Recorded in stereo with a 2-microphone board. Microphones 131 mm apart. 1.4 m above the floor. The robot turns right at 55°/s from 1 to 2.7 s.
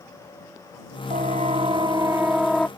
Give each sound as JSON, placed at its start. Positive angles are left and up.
{"t": 1.1, "sound": "a siren", "side_deg": -70}